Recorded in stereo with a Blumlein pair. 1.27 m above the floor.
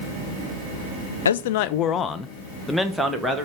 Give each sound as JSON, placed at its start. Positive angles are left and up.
{"t": 1.2, "sound": "a man speaking", "azimuth_deg": 70, "distance_m": 0.5}